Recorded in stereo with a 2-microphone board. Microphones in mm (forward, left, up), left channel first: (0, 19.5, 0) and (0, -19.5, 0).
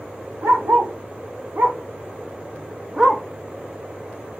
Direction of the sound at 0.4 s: 65° right (ahead or behind).